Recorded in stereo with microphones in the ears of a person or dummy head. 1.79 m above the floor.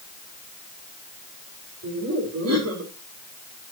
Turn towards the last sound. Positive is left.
turn(degrees=-90)